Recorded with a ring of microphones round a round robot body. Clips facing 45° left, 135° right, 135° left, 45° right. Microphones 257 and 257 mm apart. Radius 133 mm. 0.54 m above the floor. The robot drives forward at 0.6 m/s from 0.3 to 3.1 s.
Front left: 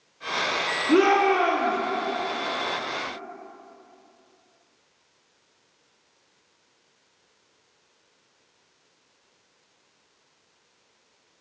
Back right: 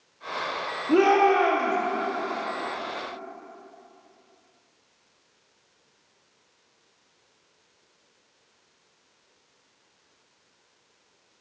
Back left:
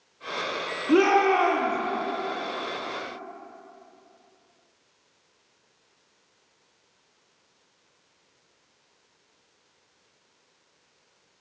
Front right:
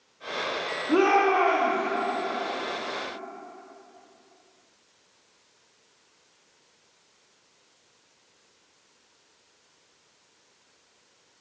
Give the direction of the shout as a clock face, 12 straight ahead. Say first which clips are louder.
Even, back left 2 dB; 8 o'clock.